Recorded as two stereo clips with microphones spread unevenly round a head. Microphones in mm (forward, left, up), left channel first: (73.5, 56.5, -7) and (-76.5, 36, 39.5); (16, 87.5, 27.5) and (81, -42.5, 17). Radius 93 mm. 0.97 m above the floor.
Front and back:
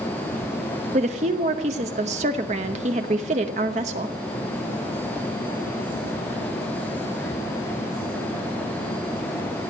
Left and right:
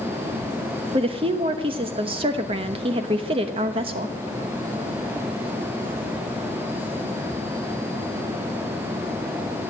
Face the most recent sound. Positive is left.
turn(degrees=-115)